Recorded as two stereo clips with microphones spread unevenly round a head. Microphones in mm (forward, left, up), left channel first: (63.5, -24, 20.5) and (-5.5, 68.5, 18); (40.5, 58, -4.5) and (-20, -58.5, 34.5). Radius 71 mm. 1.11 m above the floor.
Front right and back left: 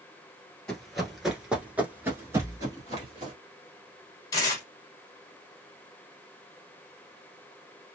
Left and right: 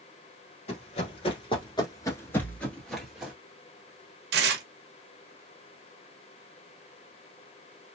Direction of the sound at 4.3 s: 120° right.